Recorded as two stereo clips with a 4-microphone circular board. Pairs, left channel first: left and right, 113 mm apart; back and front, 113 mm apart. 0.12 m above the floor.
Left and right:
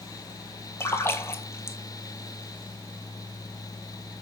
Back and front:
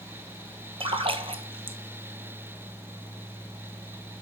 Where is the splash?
25° left, 0.8 m.